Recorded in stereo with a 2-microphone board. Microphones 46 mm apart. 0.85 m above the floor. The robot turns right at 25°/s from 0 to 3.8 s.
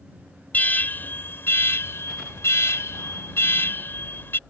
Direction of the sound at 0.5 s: 40° left.